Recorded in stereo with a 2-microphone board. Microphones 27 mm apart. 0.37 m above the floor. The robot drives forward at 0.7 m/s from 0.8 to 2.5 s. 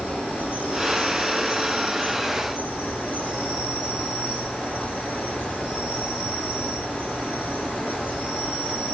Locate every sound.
0.0 s an insect: 55° right (ahead or behind), 4 m; by 8.9 s 45° right (ahead or behind), 4.5 m